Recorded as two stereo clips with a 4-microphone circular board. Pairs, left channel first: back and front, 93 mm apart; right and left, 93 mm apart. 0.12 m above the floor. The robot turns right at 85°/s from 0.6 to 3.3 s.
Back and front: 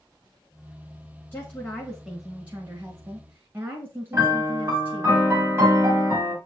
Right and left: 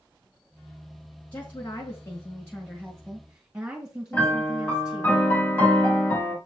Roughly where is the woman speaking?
Behind right.